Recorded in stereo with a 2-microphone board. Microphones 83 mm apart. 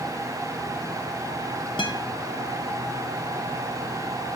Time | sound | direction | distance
1.8 | a guitar | 80° left | 1.1 m